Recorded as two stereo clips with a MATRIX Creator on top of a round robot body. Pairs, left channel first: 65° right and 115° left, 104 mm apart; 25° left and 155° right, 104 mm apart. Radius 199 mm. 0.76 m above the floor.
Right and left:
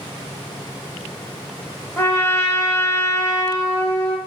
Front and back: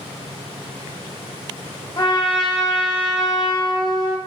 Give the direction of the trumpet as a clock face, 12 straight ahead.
12 o'clock.